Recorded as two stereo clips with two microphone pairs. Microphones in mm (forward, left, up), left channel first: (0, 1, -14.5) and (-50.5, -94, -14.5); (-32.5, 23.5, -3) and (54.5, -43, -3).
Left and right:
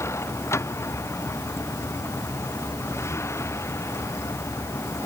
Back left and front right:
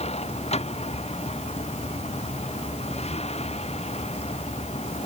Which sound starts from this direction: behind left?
A vehicle, at 0.0 s.